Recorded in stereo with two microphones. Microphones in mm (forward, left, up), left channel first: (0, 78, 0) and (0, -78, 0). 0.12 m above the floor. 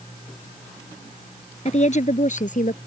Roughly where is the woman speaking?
Left.